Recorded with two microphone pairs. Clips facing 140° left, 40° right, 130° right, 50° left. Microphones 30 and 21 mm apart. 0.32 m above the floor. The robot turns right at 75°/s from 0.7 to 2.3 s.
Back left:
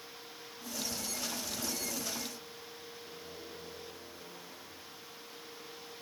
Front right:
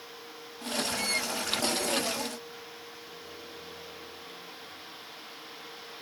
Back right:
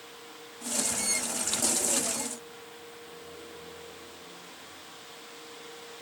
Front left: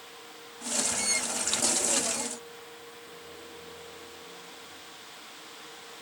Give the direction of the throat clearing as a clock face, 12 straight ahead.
No throat clearing in this recording.